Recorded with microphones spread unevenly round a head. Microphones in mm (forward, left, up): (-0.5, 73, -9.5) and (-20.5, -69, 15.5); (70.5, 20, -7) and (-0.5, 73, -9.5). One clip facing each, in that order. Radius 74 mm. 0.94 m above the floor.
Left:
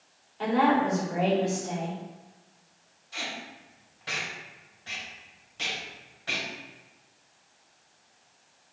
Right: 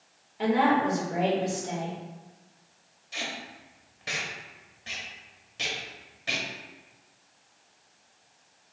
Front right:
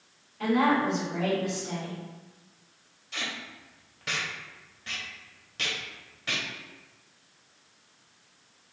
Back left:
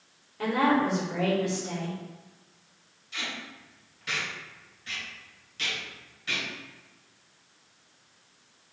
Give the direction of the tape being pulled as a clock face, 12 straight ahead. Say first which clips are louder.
Right 1 dB, front right 1 dB; 2 o'clock.